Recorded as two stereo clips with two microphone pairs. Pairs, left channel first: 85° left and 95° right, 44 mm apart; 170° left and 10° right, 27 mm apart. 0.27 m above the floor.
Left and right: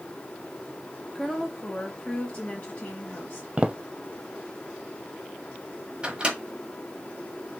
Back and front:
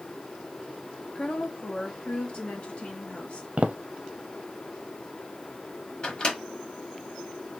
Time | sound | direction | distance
1.1 | a woman speaking | 165° left | 1.1 m
3.6 | footsteps | 35° right | 0.6 m
6.0 | a microwave | 150° right | 1.2 m